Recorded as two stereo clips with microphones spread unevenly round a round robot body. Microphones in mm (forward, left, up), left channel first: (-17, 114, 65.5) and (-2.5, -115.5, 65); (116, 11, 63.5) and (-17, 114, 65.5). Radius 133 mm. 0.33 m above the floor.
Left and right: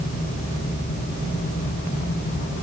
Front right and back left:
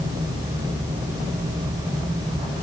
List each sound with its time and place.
Only background noise.